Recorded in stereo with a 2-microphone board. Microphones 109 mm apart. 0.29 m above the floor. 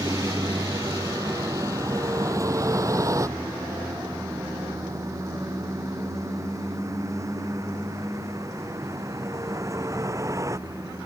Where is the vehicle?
30° right (ahead or behind).